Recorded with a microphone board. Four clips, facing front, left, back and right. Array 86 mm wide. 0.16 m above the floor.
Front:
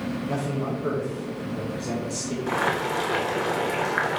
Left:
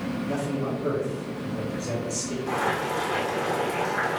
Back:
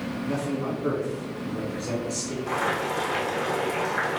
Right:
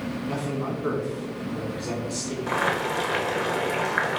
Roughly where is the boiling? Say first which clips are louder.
Right 1 dB, front 2 dB; ahead right.